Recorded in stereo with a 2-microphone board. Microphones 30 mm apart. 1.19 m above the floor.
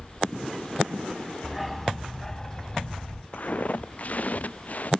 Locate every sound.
1.4 s a dog barking: 10° right (ahead or behind); by 3.2 s 35° left (ahead or behind)
3.3 s footsteps: 50° left (ahead or behind)